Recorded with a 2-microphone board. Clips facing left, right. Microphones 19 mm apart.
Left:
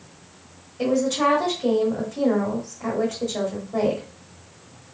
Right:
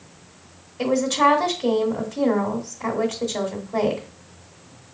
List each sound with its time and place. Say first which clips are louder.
0.8 s a woman speaking: right 2 dB; 15° right (ahead or behind), 1.0 m